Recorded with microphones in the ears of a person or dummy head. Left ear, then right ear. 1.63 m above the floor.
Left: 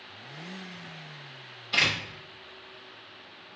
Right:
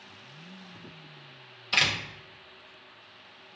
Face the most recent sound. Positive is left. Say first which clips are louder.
# even
turn(degrees=-30)  # may be behind; listen again after turning